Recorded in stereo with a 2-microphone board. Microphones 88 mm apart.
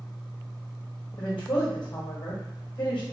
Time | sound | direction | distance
1.2 | a woman speaking | 65° left (ahead or behind) | 1.2 m